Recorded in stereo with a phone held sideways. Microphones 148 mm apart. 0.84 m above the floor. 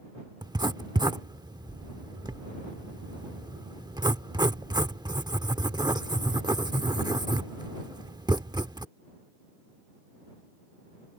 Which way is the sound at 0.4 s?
30° right (ahead or behind).